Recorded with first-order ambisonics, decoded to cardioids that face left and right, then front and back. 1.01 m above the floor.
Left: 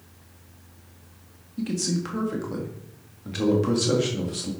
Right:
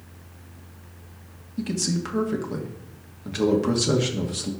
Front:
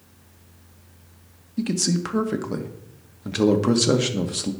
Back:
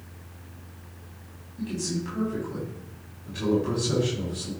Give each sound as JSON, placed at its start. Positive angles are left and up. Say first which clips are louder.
{"t": 1.6, "sound": "a man speaking", "louder": "right 1 dB, front 7 dB", "azimuth_deg": -5, "distance_m": 1.4}